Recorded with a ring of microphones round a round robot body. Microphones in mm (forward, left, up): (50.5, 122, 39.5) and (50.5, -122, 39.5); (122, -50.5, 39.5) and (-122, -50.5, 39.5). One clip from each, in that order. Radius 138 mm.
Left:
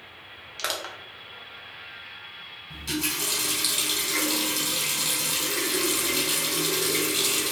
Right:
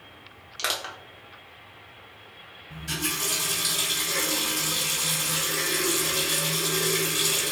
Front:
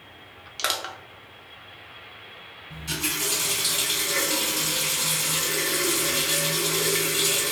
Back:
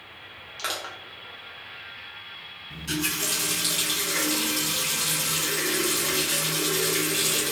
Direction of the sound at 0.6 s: 5° left.